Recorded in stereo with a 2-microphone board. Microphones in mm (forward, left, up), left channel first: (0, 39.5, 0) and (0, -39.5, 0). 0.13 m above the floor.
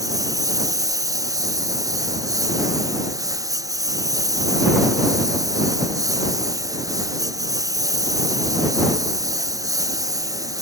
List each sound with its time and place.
0.0 s a lawn mower: 45° right (ahead or behind)